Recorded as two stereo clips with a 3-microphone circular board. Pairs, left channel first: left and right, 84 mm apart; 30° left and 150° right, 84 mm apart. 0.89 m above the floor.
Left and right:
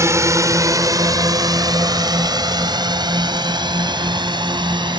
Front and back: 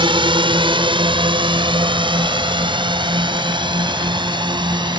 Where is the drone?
145° right; by 5.0 s 120° right.